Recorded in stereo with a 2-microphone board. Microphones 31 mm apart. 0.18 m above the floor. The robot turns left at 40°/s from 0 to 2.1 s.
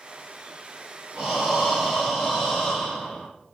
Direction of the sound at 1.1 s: 155° right.